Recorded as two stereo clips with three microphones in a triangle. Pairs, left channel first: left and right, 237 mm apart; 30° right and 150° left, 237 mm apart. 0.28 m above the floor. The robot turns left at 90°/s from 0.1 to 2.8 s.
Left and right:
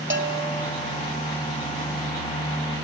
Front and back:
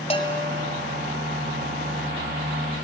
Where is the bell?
90° right, 1.3 m; by 0.7 s 140° right, 1.3 m.